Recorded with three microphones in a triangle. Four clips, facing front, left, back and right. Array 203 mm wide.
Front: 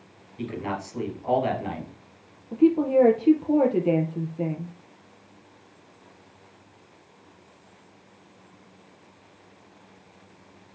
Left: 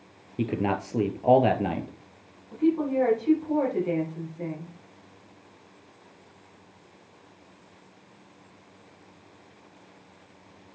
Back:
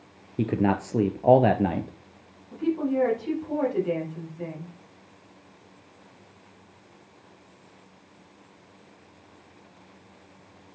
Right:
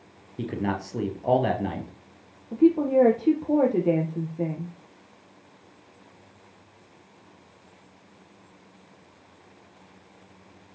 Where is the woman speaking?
45° right, 4 m.